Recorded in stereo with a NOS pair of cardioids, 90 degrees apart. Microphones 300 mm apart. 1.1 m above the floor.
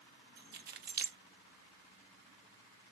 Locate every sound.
0.4 s keys jangling: 35° right, 0.5 m